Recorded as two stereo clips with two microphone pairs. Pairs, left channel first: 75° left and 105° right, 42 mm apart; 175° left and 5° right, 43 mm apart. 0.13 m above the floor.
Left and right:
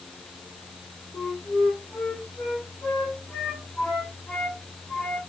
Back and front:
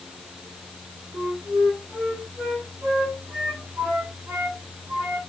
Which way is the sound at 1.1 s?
15° left.